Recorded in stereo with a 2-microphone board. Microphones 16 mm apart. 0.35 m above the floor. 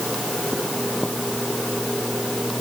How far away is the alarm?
I don't hear an alarm.